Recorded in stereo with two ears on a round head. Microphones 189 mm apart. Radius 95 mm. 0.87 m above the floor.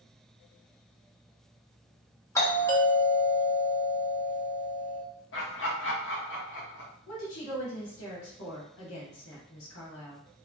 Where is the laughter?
65° left (ahead or behind), 1.9 m.